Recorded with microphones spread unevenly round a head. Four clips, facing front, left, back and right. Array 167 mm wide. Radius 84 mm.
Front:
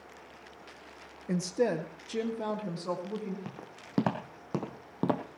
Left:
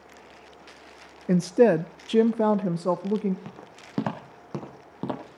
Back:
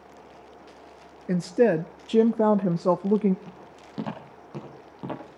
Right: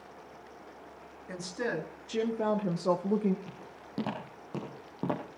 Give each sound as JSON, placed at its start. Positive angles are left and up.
{"t": 1.3, "sound": "a woman speaking", "azimuth_deg": 100, "distance_m": 0.7}
{"t": 3.5, "sound": "footsteps", "azimuth_deg": 40, "distance_m": 3.5}